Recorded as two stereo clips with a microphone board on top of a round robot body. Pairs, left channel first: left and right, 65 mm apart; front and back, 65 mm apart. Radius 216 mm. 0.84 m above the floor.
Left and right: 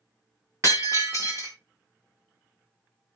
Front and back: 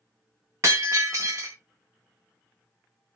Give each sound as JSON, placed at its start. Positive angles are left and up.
{"t": 0.6, "sound": "breaking glass", "azimuth_deg": -145, "distance_m": 0.5}